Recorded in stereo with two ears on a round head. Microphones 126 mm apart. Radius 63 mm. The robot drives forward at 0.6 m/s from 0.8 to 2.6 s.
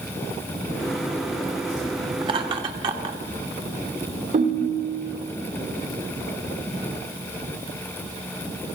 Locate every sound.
2.2 s laughter: 40° right (ahead or behind), 1.5 m; by 3.2 s 35° right (ahead or behind), 1.6 m
4.3 s a ringtone: 60° right (ahead or behind), 1.9 m